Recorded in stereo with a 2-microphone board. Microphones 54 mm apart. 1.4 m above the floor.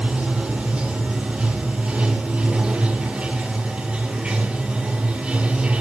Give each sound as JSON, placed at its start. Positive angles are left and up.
{"t": 0.0, "sound": "running water", "side_deg": -20, "distance_m": 2.0}